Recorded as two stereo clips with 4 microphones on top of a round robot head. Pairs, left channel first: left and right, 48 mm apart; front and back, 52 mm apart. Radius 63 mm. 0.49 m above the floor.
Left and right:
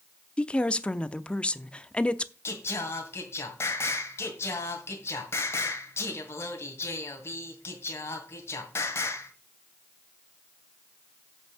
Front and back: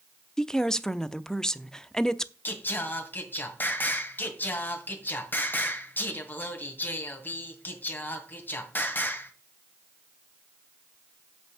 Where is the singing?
55° left, 1.9 m.